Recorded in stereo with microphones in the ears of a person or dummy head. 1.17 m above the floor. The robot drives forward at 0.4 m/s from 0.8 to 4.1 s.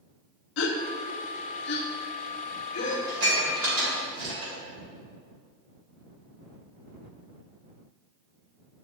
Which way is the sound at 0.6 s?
75° left (ahead or behind).